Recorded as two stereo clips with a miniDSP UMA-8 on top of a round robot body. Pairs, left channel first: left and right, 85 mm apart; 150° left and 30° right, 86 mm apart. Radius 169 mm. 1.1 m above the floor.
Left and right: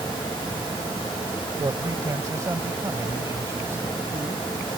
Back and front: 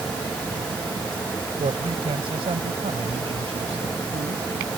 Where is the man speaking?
35° right; by 4.4 s 25° right.